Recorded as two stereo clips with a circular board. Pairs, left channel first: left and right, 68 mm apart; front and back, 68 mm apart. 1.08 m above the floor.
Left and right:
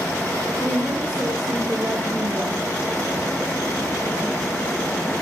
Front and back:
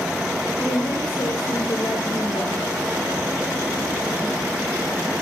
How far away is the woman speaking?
About 5 m.